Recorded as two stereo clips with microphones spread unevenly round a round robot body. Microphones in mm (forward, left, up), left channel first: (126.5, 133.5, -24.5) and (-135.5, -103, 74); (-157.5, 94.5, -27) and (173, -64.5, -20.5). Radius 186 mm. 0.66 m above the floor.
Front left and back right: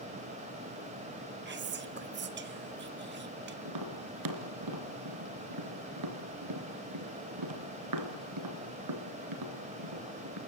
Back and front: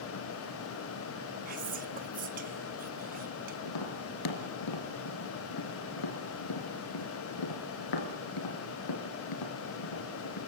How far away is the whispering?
About 1.2 m.